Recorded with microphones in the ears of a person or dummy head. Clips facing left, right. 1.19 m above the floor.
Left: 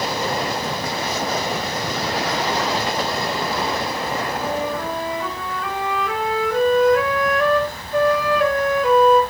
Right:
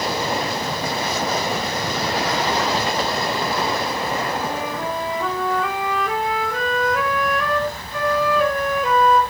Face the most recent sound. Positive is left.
turn(degrees=-15)  # may be behind; listen again after turning